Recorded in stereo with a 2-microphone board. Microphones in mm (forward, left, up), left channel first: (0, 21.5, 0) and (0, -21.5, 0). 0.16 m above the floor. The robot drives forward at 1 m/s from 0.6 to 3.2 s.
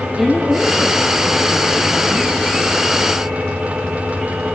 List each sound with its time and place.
0.2 s a woman speaking: 5° right (ahead or behind), 2.5 m; by 2.4 s centre (ahead or behind), 4 m